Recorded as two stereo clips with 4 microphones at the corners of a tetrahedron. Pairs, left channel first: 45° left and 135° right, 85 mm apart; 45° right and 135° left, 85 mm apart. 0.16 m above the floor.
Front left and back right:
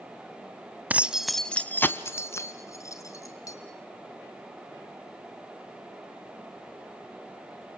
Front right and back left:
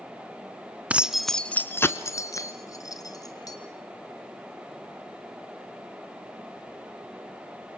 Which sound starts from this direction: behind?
Keys jangling, at 0.9 s.